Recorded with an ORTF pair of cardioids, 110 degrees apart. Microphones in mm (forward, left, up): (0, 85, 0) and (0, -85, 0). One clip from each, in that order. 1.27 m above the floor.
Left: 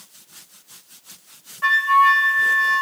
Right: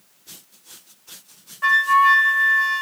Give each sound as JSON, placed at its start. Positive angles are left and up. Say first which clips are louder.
{"t": 1.6, "sound": "a flute", "louder": "even", "azimuth_deg": 5, "distance_m": 2.5}